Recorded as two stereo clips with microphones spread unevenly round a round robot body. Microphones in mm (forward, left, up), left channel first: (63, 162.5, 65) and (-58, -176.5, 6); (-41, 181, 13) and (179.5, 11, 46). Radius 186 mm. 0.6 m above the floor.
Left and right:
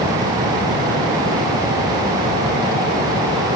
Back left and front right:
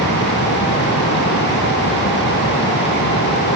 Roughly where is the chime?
I don't hear a chime.